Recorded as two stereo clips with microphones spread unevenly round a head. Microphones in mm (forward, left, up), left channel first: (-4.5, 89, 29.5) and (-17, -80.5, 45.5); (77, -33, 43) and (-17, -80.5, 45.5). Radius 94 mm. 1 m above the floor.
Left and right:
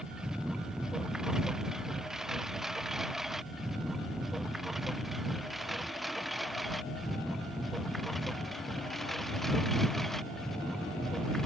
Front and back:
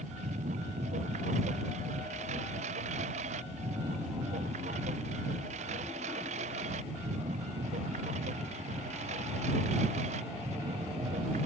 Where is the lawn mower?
Straight behind; by 11.5 s 175° left.